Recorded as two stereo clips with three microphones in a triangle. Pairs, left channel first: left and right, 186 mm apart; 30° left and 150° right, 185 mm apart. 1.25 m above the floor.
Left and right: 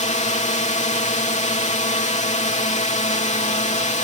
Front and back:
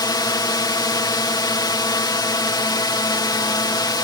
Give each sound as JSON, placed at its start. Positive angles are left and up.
{"t": 0.0, "sound": "a drone", "azimuth_deg": 85}